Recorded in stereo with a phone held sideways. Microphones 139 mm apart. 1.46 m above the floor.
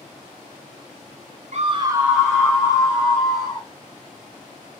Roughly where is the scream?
Right.